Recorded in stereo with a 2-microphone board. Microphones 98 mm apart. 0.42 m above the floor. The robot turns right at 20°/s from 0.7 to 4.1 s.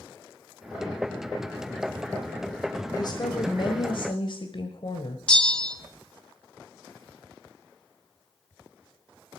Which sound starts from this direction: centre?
A bell, at 5.3 s.